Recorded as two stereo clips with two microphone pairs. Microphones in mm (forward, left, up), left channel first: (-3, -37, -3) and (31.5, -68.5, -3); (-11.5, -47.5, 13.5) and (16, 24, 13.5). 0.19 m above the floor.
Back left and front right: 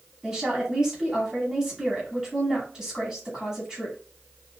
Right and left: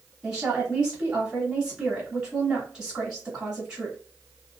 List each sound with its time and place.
0.2 s a woman speaking: 5° left, 1.2 m